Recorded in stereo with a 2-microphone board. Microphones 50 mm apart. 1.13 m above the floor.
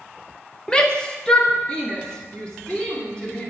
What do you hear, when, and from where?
0.7 s a shout: 15° left (ahead or behind), 0.6 m; by 3.5 s 20° left (ahead or behind), 3 m